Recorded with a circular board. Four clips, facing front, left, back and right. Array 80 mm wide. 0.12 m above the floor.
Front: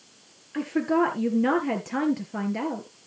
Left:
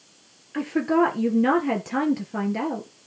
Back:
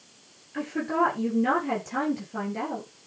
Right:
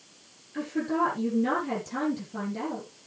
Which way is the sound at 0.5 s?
65° left.